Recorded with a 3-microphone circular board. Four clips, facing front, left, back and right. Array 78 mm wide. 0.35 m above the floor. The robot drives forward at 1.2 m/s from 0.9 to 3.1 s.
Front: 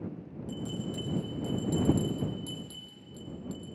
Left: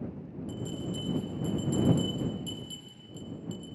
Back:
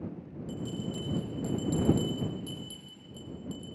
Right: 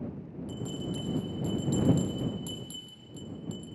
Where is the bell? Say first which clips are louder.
Even, even; 50° right, 4.5 m; by 3.8 s 85° right, 3.5 m.